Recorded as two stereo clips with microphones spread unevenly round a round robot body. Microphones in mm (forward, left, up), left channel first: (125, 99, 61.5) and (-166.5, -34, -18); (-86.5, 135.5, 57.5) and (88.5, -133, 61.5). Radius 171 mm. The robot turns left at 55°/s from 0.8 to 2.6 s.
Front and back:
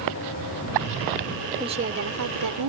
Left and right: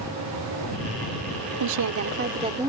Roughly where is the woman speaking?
Right.